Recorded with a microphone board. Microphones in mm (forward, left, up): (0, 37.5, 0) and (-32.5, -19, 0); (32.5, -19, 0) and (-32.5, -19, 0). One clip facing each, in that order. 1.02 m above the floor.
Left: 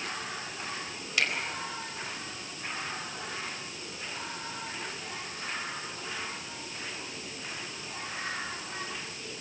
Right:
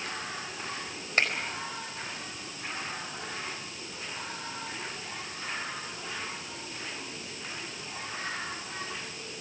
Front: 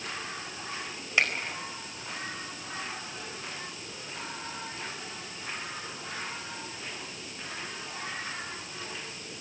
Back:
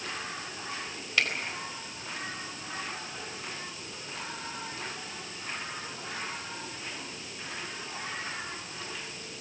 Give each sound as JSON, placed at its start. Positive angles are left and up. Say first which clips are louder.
{"t": 1.2, "sound": "a finger snap", "louder": "right 2 dB, front 2 dB", "azimuth_deg": -70, "distance_m": 4.5}